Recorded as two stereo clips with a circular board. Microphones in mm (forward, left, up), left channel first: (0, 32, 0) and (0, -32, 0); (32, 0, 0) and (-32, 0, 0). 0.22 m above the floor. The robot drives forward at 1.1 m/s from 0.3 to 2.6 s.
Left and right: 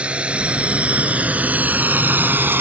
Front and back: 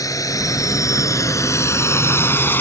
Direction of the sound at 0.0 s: 20° right.